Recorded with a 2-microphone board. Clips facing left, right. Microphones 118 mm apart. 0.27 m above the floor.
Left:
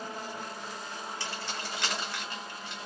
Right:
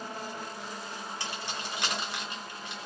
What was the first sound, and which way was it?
Keys jangling, 15° right (ahead or behind).